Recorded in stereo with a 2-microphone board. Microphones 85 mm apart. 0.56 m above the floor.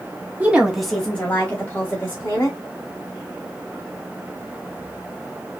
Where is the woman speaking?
20° right (ahead or behind), 0.8 m; by 2.6 s 30° left (ahead or behind), 1.8 m.